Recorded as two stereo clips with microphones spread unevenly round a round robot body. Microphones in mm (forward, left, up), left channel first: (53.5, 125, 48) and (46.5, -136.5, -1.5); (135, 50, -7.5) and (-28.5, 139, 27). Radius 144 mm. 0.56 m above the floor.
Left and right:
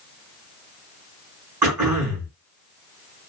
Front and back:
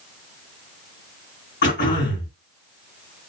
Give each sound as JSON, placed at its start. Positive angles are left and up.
{"t": 1.6, "sound": "throat clearing", "azimuth_deg": -70, "distance_m": 4.0}